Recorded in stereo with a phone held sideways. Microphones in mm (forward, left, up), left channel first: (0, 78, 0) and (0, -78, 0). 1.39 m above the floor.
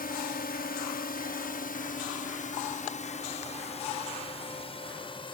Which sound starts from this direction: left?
A drone, at 0.0 s.